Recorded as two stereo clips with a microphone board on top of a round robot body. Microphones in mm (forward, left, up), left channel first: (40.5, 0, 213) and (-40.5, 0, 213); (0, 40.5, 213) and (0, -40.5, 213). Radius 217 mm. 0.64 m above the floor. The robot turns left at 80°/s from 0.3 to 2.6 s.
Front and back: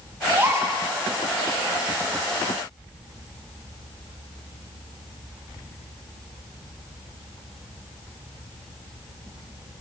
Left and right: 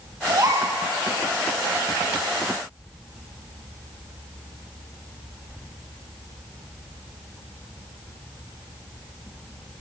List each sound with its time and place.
0.3 s a gasp: 115° right, 3 m; by 0.8 s 150° right, 3 m